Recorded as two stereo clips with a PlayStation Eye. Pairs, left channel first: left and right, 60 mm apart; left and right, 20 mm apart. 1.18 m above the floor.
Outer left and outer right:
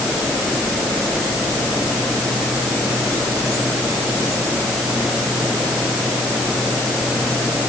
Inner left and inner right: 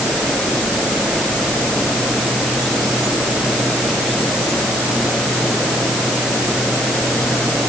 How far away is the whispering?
No whispering in this recording.